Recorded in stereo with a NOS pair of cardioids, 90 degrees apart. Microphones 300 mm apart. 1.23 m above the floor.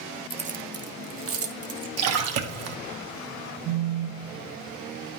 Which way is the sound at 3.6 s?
65° right.